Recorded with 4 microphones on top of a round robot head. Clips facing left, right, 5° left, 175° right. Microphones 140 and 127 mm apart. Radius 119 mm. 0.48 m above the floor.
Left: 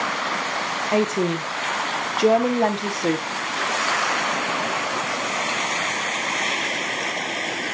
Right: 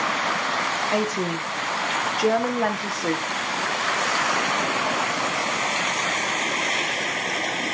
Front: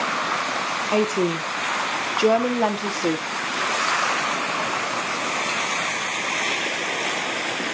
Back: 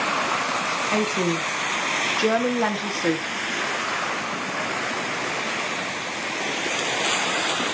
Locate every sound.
0.9 s a woman speaking: 60° left, 0.8 m